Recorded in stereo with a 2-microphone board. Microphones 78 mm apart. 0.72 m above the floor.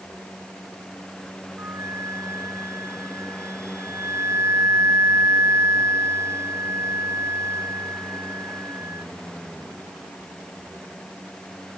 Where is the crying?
I don't hear crying.